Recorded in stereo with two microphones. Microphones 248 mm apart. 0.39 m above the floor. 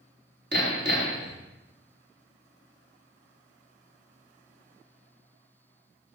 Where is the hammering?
45° right (ahead or behind), 1.8 m.